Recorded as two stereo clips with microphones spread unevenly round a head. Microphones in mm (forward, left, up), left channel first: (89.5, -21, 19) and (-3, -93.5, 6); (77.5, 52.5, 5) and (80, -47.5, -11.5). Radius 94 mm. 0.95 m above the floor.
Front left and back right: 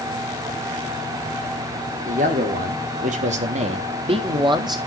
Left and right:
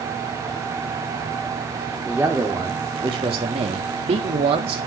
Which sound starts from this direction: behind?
A man speaking, at 2.1 s.